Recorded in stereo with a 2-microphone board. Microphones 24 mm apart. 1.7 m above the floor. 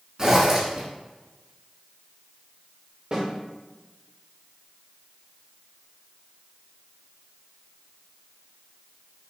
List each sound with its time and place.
0.2 s a zipper: 30° right (ahead or behind), 1.7 m
3.1 s a snare drum: 35° right (ahead or behind), 1.6 m